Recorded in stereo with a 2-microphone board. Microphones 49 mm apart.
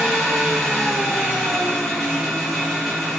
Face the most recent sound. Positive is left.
turn(degrees=5)  # may be behind; listen again after turning